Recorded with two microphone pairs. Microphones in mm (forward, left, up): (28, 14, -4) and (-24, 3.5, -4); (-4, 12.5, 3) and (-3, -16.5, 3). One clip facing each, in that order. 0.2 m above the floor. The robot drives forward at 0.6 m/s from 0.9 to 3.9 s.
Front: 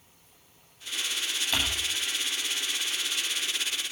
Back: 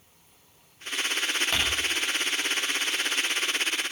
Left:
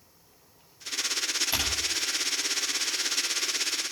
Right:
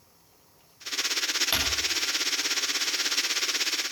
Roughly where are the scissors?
I don't hear scissors.